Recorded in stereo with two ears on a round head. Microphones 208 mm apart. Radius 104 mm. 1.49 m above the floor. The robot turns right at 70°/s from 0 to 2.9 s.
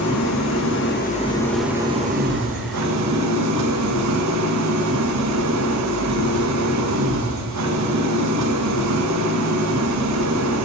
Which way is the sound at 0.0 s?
70° left.